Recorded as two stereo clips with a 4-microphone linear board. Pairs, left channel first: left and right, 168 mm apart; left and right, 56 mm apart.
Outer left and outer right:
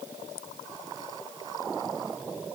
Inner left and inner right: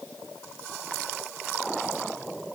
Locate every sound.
Only background noise.